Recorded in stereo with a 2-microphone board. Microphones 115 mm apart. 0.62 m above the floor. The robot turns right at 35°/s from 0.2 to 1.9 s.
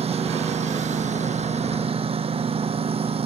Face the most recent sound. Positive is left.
turn(degrees=-60)